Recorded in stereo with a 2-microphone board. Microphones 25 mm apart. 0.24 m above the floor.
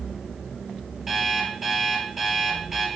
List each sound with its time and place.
1.1 s an alarm clock: 10° right (ahead or behind), 2.5 m